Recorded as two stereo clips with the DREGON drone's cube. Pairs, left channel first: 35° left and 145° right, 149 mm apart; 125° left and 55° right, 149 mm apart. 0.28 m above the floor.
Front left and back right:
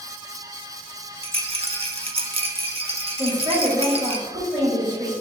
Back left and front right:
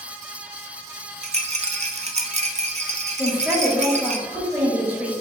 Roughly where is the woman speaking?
Behind right.